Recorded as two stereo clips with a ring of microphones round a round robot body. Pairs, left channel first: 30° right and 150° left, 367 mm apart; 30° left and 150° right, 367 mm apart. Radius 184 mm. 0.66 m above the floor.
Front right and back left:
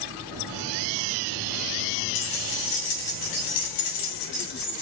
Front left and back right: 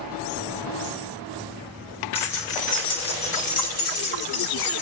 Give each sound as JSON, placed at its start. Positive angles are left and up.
{"t": 2.1, "sound": "keys jangling", "azimuth_deg": -55, "distance_m": 3.5}